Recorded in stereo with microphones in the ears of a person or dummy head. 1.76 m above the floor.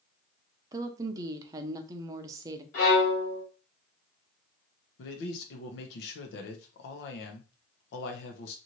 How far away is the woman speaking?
About 0.6 m.